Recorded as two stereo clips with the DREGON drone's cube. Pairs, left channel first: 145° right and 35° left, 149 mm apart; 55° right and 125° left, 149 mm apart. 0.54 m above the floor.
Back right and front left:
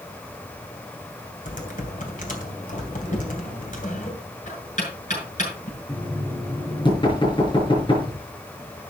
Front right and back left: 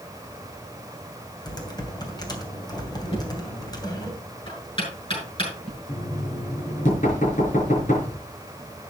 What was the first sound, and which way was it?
Typing on a keyboard, 120° right.